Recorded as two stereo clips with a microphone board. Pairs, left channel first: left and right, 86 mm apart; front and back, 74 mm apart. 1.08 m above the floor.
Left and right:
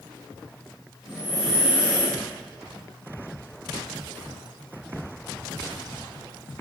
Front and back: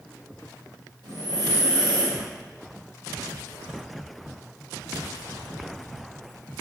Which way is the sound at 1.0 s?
175° right.